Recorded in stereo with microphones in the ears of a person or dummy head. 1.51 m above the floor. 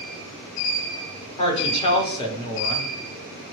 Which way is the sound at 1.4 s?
35° left (ahead or behind).